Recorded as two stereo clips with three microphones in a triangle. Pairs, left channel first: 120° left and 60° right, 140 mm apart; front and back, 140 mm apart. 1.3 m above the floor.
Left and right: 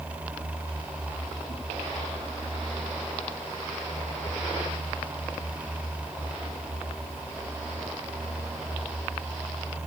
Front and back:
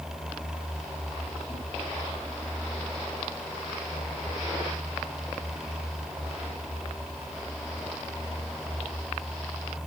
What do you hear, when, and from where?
Only background noise.